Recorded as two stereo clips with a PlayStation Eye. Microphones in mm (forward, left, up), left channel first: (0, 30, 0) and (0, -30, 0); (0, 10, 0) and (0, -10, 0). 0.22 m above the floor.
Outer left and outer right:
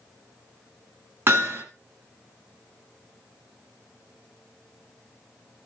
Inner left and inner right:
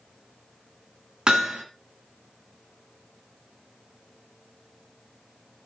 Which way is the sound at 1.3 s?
40° right (ahead or behind).